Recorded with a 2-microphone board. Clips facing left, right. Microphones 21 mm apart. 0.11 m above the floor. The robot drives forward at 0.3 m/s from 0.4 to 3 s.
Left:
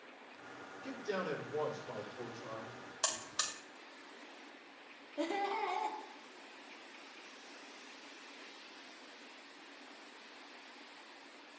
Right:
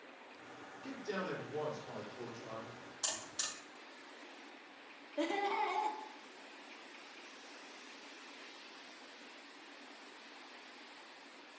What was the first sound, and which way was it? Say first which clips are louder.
A man speaking: left 2 dB; 5° right (ahead or behind).